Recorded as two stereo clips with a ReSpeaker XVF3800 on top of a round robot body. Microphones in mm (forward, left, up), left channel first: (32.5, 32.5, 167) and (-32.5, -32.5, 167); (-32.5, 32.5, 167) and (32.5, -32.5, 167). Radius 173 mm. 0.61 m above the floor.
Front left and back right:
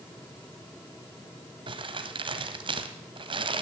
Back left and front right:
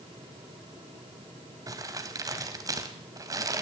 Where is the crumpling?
100° right, 1.9 m.